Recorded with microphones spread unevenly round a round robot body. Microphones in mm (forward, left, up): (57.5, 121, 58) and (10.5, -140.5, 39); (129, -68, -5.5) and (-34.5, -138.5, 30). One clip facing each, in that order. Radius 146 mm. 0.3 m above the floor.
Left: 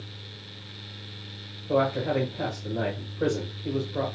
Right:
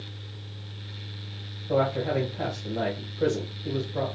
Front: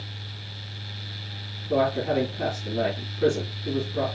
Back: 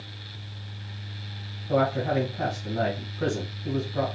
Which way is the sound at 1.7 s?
165° left.